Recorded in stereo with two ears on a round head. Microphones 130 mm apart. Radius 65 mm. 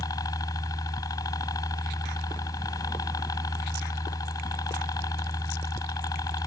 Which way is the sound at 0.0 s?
25° left (ahead or behind).